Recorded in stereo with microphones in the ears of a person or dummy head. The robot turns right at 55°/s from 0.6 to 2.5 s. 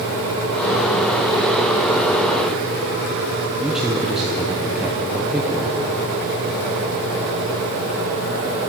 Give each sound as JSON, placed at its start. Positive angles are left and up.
{"t": 3.6, "sound": "a man speaking", "side_deg": -5, "distance_m": 0.7}